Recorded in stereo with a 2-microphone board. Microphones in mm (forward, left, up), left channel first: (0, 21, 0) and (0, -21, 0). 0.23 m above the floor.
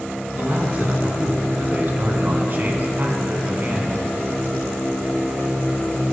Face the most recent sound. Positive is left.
turn(degrees=-50)  # may be behind; listen again after turning